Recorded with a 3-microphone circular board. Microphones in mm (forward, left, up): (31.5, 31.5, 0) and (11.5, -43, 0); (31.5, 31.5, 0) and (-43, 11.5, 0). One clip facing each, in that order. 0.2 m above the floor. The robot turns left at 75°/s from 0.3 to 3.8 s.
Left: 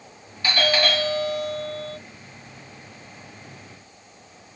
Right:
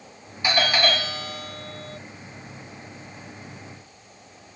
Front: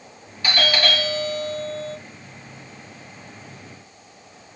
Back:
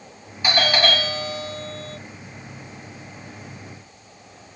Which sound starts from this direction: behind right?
A doorbell, at 0.4 s.